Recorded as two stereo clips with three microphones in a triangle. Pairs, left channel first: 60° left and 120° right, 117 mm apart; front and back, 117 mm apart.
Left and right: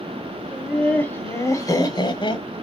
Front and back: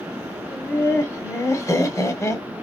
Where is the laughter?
25° right, 1.1 m; by 2.5 s 50° left, 1.5 m.